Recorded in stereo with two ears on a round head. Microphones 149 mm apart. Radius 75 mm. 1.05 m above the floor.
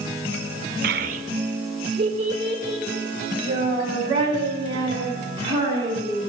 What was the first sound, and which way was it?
A child speaking, 60° right (ahead or behind).